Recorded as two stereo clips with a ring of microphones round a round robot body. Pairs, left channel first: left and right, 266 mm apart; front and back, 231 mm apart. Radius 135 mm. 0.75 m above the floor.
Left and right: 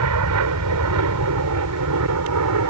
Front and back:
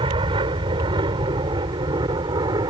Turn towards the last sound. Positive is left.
turn(degrees=-105)